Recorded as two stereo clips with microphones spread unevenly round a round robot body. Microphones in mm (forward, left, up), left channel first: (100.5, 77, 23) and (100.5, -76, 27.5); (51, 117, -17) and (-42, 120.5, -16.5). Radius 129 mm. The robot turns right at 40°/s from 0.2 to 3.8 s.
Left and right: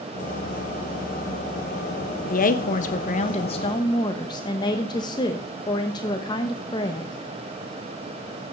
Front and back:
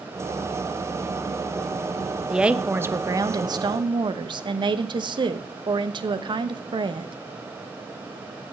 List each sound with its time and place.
2.3 s a woman speaking: 95° left, 0.9 m; by 7.1 s 155° left, 0.9 m